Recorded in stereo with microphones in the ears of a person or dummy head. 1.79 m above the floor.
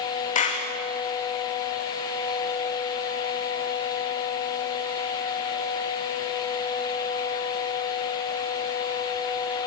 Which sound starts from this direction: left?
A clap, at 0.3 s.